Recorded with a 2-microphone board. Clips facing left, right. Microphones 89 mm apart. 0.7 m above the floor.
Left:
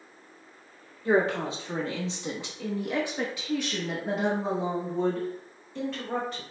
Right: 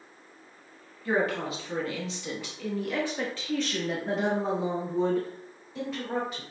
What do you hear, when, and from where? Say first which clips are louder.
1.1 s a woman speaking: left 3 dB; 25° left (ahead or behind), 1.2 m; by 6.4 s 10° right (ahead or behind), 2 m